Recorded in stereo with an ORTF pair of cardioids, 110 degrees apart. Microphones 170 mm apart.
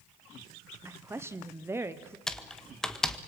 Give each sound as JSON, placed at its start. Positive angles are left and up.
{"t": 0.8, "sound": "a woman speaking", "azimuth_deg": -15, "distance_m": 0.9}
{"t": 2.3, "sound": "typing on a keyboard", "azimuth_deg": 5, "distance_m": 1.7}